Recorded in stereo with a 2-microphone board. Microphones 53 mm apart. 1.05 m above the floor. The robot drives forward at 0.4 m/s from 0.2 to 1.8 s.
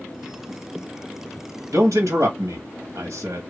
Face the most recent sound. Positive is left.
turn(degrees=-65)  # may be behind; listen again after turning